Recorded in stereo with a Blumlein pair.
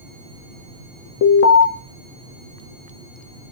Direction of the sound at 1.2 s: 50° left.